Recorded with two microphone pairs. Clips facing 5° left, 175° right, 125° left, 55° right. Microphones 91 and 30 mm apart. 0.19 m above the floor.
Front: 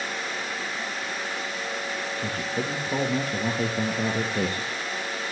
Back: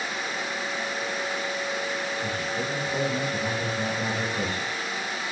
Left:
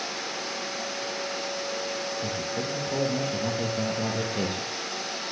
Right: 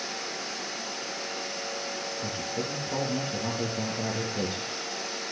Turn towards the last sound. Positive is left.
turn(degrees=40)